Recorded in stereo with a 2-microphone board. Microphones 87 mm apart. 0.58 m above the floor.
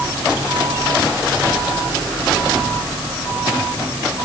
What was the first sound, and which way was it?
Only background noise.